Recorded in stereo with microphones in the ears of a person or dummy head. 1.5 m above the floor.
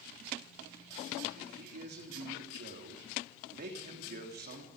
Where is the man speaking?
50° right (ahead or behind), 3 m.